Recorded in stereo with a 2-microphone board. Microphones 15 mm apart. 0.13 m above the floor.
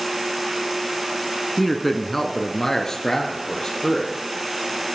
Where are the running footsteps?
I don't hear running footsteps.